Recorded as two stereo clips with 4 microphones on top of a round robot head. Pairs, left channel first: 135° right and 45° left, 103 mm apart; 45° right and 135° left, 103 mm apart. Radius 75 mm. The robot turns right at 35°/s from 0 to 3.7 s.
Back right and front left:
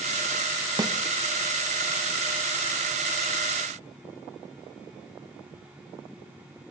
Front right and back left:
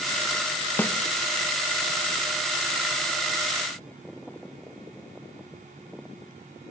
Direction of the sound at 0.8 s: 20° left.